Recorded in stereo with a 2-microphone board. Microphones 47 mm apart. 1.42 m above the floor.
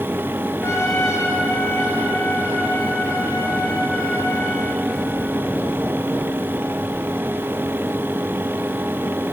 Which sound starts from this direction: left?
A trumpet, at 0.6 s.